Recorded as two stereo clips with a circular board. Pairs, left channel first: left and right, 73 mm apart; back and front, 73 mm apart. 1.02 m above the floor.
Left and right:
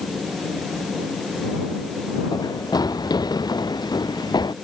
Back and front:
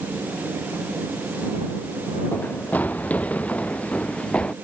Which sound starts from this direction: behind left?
Running footsteps, at 2.3 s.